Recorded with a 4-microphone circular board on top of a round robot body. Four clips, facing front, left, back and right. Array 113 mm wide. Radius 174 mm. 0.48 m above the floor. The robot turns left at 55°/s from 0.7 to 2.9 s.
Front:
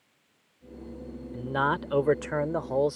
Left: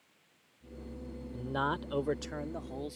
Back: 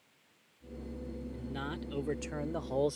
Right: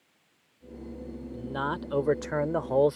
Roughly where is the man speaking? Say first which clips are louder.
Right 2 dB, front 16 dB; ahead.